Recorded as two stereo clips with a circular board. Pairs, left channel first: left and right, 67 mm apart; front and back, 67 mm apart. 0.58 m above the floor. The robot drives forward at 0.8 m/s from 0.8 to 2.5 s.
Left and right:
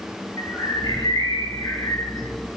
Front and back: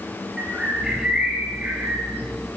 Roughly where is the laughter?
I don't hear laughter.